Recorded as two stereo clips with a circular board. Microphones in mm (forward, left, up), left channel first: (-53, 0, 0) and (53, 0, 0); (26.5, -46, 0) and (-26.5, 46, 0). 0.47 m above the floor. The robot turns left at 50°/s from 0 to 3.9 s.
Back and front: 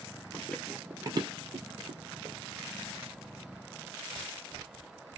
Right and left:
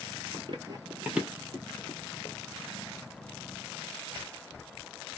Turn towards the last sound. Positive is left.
turn(degrees=-120)